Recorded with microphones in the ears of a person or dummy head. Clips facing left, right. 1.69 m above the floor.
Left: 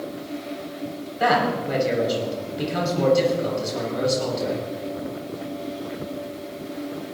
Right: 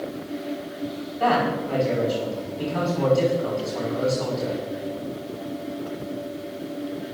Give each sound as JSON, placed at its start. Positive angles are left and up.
{"t": 1.2, "sound": "a man speaking", "side_deg": 25, "distance_m": 6.5}